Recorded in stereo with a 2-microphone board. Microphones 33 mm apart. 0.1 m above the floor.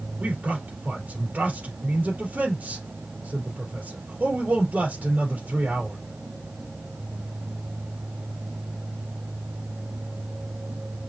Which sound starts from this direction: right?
A man speaking, at 0.2 s.